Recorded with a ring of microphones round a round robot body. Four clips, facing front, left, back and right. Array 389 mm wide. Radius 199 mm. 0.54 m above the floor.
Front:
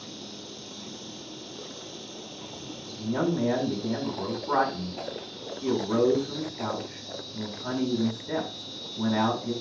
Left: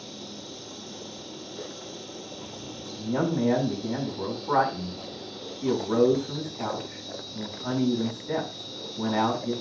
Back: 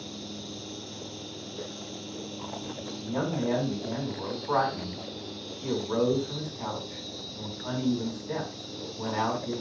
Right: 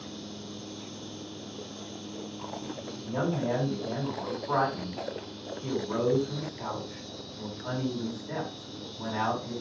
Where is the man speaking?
50° left, 5.5 m.